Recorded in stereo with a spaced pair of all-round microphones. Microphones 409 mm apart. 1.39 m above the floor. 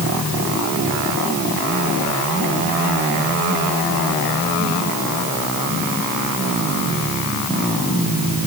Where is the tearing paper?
I don't hear tearing paper.